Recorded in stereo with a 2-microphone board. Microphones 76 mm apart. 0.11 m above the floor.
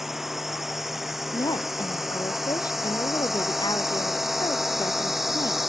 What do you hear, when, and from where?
0.0 s a drone: 5° right (ahead or behind)
1.3 s a woman speaking: 65° left (ahead or behind)